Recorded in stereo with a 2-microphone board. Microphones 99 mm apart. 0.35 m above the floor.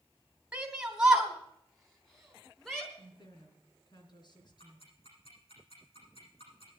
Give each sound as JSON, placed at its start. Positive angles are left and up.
{"t": 0.5, "sound": "a shout", "side_deg": -10, "distance_m": 2.5}
{"t": 3.0, "sound": "a woman speaking", "side_deg": 50, "distance_m": 3.5}
{"t": 4.6, "sound": "ticking", "side_deg": 70, "distance_m": 10.0}